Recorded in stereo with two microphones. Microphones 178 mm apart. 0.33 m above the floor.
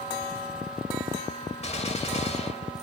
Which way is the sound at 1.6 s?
40° left (ahead or behind).